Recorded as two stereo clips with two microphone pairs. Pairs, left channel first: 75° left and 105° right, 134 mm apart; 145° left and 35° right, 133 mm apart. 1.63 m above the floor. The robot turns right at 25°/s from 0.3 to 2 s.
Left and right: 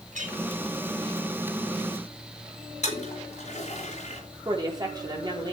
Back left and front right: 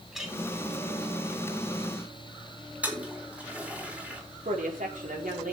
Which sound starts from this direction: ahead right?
A woman speaking, at 4.5 s.